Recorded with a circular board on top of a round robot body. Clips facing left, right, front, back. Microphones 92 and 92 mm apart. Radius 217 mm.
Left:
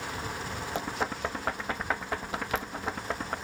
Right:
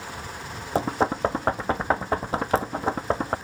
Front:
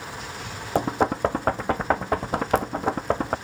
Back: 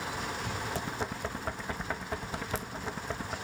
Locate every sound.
0.8 s knocking: 35° right